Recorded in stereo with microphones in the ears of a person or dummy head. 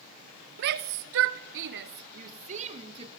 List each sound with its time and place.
0.6 s a shout: 60° right (ahead or behind), 1.6 m; by 3.1 s 35° right (ahead or behind), 2 m